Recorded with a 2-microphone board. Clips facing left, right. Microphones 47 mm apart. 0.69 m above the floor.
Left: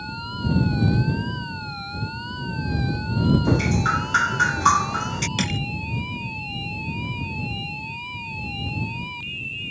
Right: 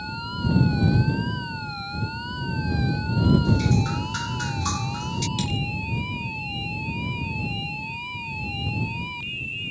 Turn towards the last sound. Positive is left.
turn(degrees=60)  # may be behind; listen again after turning